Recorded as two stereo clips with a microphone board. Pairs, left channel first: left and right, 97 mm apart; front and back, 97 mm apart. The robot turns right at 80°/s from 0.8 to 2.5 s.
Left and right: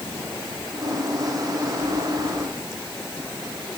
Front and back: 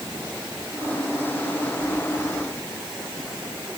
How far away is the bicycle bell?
No bicycle bell in this recording.